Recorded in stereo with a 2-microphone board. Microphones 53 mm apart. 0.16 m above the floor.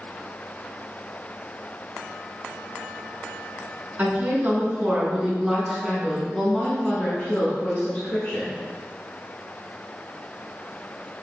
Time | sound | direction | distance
4.0 | a woman speaking | 40° right (ahead or behind) | 1.5 m